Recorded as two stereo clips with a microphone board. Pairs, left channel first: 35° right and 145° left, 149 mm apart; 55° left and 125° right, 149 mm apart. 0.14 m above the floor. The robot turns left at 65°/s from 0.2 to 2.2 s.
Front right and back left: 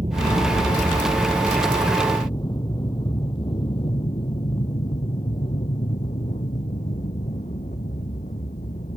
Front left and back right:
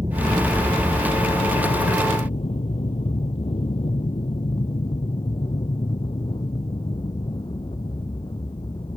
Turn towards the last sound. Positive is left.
turn(degrees=0)